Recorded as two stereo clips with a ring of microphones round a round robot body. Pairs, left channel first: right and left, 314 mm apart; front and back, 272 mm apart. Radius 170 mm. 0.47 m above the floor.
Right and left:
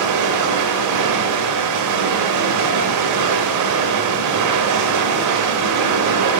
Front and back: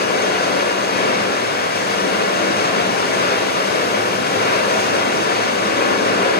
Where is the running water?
55° left, 0.9 m.